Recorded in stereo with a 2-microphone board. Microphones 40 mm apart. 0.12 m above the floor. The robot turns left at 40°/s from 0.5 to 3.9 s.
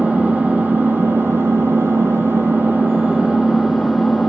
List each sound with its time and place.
0.0 s an engine running: 40° right, 1.4 m; by 4.3 s straight behind, 1.4 m